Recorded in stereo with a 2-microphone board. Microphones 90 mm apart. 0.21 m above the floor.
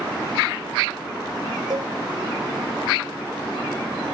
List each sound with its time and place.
1.7 s a cowbell: 50° right (ahead or behind), 2.5 m